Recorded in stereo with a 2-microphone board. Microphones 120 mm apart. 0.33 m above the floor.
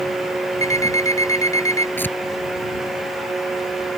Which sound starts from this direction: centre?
Tearing paper, at 2.0 s.